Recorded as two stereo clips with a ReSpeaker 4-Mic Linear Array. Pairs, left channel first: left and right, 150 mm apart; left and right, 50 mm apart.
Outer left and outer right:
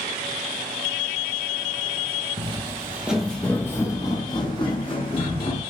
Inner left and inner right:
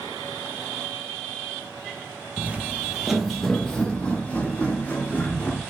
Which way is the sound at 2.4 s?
40° right (ahead or behind).